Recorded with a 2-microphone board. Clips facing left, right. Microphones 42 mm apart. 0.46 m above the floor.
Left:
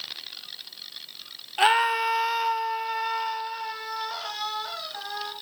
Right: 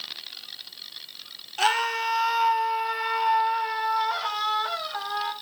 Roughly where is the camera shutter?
No camera shutter in this recording.